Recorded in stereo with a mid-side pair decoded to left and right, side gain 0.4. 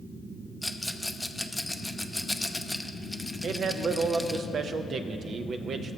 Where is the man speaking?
65° right, 0.6 m.